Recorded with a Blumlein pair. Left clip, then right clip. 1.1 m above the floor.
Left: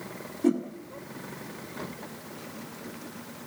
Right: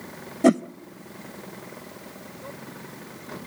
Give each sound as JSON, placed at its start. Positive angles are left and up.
{"t": 0.4, "sound": "a whoosh", "azimuth_deg": -55, "distance_m": 0.7}